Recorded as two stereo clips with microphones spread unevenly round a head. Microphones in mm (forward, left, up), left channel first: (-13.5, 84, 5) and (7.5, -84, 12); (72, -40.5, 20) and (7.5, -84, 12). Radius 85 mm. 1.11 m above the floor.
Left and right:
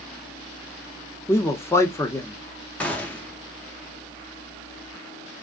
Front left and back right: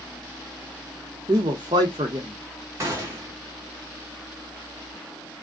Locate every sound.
1.3 s a man speaking: 170° left, 0.6 m
2.8 s a gunshot: 175° left, 0.7 m